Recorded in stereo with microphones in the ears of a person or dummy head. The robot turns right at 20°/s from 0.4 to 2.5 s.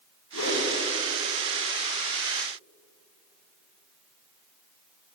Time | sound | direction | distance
0.3 | a whoosh | 85° left | 8.5 m